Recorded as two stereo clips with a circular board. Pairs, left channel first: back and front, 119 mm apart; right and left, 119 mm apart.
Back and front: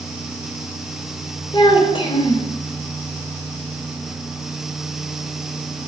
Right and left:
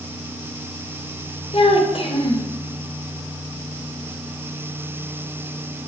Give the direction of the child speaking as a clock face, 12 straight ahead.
4 o'clock.